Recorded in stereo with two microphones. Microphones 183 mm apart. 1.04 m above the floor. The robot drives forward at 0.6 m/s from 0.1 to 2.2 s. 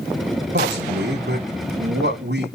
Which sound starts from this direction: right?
A man speaking, at 0.5 s.